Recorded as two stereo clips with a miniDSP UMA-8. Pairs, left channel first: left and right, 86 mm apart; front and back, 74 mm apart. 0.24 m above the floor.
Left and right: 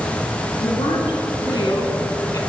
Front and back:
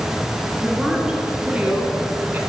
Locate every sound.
0.6 s a woman speaking: 95° left, 2.5 m; by 2.4 s 125° left, 1.7 m